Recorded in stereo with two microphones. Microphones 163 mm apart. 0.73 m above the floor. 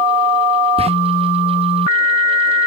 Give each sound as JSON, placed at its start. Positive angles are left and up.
{"t": 0.8, "sound": "whispering", "side_deg": -35, "distance_m": 0.7}